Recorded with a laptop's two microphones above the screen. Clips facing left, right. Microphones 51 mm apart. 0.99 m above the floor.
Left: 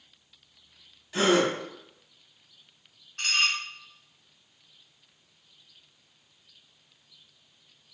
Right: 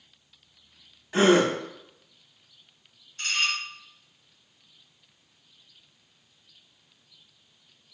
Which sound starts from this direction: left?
Dishes clattering, at 3.2 s.